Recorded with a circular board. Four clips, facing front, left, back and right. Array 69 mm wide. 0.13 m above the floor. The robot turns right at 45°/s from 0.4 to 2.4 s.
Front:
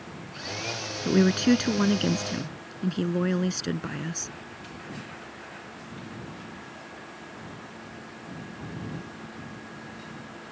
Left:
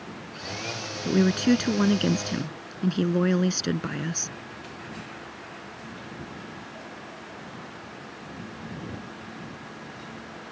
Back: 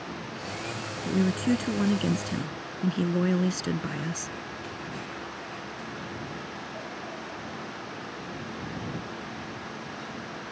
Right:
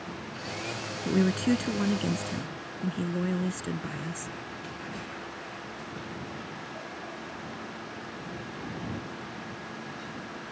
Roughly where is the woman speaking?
Ahead.